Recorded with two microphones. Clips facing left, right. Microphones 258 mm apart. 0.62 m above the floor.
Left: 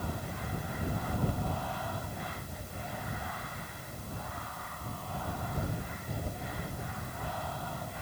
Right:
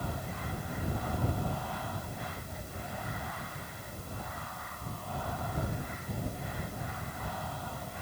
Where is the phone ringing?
No phone ringing in this recording.